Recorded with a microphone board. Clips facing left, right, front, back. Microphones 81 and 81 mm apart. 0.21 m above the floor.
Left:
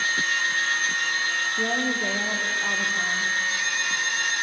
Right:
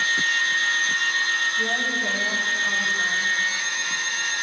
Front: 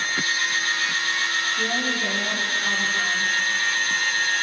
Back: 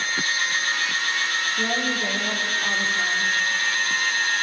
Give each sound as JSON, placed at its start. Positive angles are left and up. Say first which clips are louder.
{"t": 1.6, "sound": "a woman speaking", "louder": "even, even", "azimuth_deg": 110, "distance_m": 7.5}